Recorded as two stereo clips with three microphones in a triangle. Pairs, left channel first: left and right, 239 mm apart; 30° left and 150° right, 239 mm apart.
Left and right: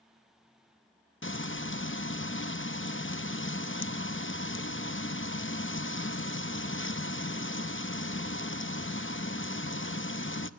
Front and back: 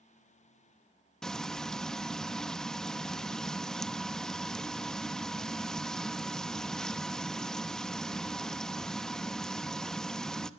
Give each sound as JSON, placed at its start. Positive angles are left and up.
{"t": 1.2, "sound": "frying", "azimuth_deg": 115, "distance_m": 0.7}